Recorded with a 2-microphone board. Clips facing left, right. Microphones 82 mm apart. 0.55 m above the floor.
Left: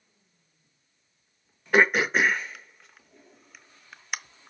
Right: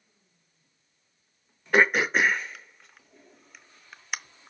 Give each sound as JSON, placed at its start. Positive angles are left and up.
{"t": 1.7, "sound": "throat clearing", "side_deg": 0, "distance_m": 0.6}